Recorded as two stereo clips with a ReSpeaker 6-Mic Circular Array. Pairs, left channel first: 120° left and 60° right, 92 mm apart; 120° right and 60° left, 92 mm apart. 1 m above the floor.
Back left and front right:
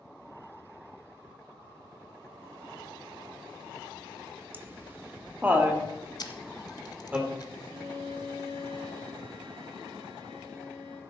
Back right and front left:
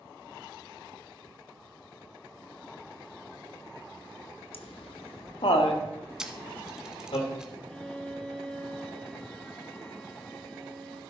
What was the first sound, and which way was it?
Laughter, 125° right.